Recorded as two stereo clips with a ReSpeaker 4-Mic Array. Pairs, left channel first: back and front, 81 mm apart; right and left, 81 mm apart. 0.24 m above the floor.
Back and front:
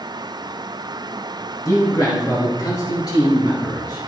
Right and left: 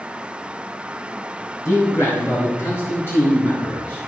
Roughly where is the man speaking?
Behind right.